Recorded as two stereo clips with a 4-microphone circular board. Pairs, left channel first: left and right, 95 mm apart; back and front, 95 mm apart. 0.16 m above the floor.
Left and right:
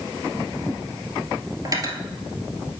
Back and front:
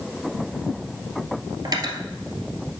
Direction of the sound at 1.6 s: 45° right.